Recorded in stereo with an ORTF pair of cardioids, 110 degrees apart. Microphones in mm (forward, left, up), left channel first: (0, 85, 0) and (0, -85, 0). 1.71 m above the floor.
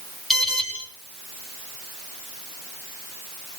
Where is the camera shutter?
I don't hear a camera shutter.